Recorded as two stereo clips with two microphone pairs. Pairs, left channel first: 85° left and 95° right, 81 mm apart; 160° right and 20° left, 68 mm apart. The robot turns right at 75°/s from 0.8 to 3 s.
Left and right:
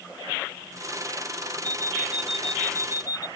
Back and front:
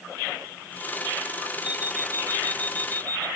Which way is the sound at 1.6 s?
60° right.